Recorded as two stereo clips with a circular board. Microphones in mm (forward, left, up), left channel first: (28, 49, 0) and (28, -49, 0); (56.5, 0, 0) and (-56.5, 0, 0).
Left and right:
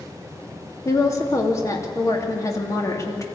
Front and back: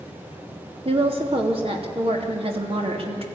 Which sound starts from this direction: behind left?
A woman speaking, at 0.8 s.